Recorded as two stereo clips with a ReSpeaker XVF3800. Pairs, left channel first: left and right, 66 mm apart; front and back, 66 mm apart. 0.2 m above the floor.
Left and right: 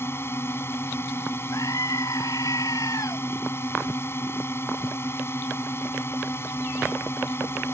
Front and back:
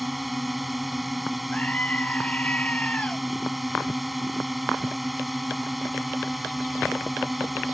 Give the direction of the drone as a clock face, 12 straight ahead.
9 o'clock.